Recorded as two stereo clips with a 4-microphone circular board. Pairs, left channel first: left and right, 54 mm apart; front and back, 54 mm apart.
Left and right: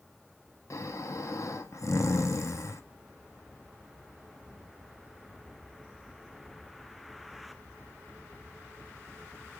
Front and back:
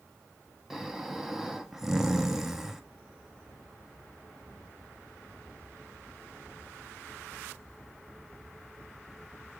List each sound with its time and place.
0.7 s snoring: 95° left, 0.6 m